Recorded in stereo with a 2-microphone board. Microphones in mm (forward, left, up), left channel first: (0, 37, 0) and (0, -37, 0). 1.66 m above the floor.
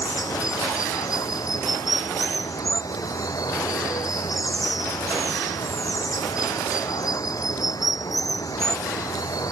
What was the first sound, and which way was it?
Running water, 60° left (ahead or behind).